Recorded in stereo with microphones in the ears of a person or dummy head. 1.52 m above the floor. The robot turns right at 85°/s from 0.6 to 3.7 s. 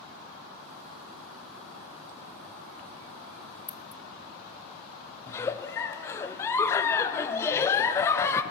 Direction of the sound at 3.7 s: 10° left (ahead or behind).